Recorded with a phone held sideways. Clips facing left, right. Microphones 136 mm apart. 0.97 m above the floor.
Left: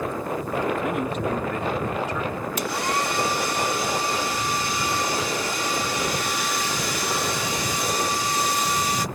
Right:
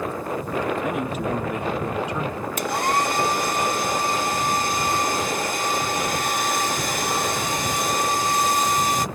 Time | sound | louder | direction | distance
0.8 | a man speaking | even | centre (ahead or behind) | ?
2.6 | a hair dryer | right 4 dB | 50° right (ahead or behind) | ?